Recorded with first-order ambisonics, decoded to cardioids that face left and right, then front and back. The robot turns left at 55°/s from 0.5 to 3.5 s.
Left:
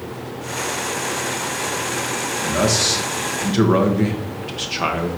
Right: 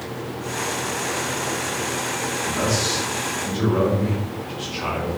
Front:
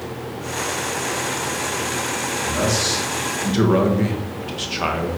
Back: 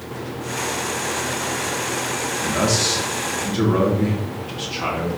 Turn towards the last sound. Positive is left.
turn(degrees=55)